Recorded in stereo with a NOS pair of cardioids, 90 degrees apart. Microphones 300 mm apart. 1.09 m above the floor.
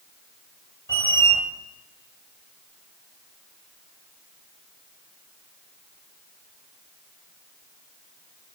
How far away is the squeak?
About 1.0 m.